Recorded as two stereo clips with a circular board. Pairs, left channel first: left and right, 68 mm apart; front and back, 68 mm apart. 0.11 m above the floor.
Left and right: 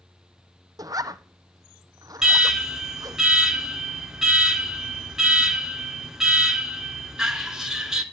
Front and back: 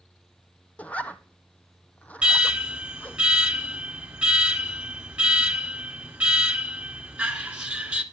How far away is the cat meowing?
No cat meowing in this recording.